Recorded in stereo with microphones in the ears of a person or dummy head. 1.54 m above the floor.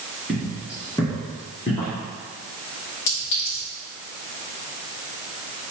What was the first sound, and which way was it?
Footsteps, 15° right (ahead or behind).